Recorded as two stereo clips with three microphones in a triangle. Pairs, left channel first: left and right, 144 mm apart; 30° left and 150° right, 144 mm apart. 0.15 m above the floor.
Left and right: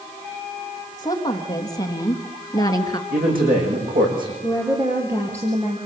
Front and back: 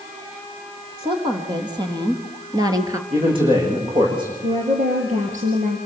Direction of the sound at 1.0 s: 155° left.